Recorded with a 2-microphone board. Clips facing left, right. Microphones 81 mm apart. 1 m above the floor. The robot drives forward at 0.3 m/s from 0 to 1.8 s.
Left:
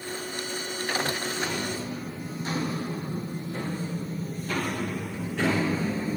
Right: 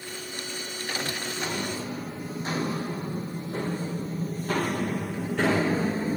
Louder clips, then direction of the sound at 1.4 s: Left 1 dB; 35° right (ahead or behind).